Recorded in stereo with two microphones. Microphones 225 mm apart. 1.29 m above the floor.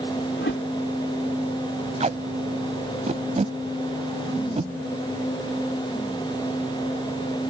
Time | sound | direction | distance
0.3 | a whoosh | 65° left (ahead or behind) | ?
2.0 | tape being pulled | 30° right (ahead or behind) | ?